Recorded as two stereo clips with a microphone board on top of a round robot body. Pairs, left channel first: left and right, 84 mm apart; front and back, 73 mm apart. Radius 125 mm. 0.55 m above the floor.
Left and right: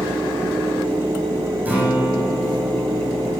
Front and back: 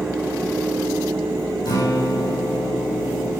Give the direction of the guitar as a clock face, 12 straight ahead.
1 o'clock.